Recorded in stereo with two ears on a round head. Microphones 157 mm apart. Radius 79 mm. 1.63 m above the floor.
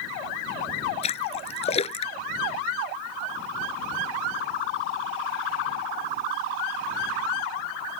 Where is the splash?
35° left (ahead or behind).